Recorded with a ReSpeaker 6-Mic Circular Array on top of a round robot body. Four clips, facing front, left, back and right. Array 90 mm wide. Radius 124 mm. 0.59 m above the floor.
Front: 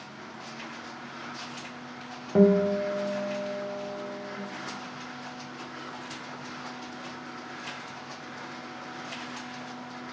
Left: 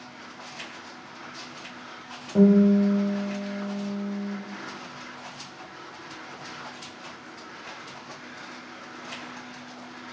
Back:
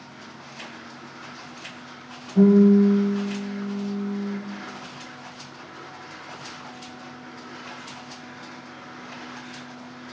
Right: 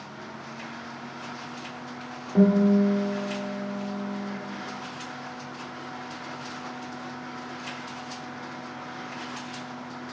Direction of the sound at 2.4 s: Straight ahead.